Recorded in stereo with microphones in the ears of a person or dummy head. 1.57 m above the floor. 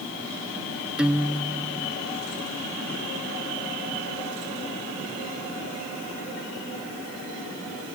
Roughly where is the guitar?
Centre.